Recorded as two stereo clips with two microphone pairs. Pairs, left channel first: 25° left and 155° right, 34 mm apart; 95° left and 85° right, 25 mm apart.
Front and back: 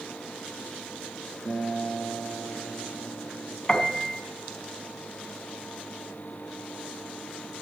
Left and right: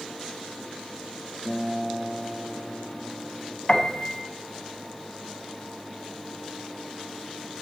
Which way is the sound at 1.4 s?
45° left.